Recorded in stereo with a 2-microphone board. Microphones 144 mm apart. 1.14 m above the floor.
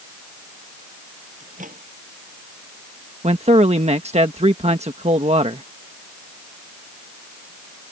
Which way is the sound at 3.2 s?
50° right (ahead or behind).